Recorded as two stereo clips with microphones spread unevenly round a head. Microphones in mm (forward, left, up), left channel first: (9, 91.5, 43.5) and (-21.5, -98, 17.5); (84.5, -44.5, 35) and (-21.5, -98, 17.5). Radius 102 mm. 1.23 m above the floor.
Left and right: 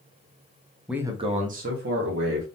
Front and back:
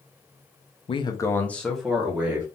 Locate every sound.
0.9 s a man speaking: 15° right, 0.9 m; by 2.5 s 75° right, 2 m